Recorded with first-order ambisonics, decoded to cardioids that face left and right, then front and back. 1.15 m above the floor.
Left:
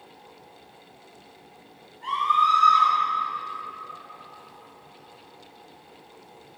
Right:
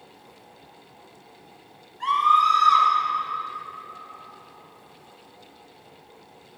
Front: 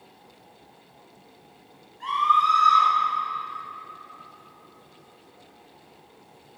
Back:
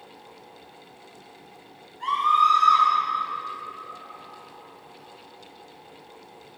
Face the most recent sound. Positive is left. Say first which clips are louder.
# right 3 dB, even
turn(degrees=-90)